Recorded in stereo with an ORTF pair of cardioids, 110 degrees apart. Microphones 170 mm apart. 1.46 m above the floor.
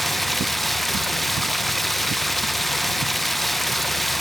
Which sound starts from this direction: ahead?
Running water, at 0.0 s.